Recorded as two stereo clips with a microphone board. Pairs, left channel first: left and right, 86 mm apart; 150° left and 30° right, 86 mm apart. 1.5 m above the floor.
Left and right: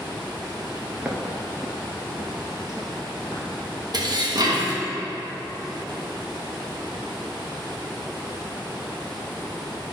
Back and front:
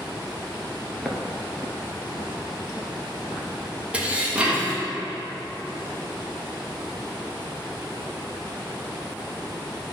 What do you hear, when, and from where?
1.0 s footsteps: 110° right, 1.5 m; by 3.8 s straight behind, 3.5 m
3.9 s dishes clattering: 100° right, 1.1 m